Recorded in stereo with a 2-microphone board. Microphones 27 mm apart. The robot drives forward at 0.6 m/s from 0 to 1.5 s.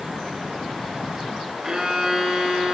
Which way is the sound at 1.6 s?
25° right (ahead or behind).